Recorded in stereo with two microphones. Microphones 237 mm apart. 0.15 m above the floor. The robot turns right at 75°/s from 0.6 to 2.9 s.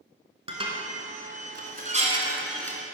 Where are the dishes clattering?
25° right (ahead or behind), 1.1 m; by 2.8 s 15° left (ahead or behind), 1.1 m.